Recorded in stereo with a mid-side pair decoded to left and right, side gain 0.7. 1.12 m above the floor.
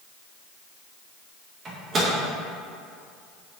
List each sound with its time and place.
1.6 s a microwave: 35° right, 1.0 m